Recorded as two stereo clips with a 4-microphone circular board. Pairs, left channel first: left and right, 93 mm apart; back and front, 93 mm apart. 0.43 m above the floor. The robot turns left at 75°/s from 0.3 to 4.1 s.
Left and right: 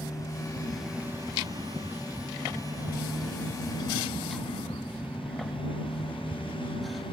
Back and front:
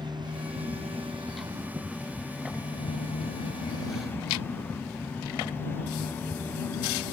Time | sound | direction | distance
0.0 | a motorcycle | 35° left | ?